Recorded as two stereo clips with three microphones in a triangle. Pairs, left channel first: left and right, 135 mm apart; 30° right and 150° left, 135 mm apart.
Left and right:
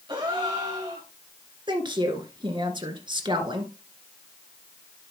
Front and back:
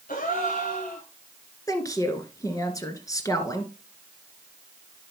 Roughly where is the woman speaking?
Right.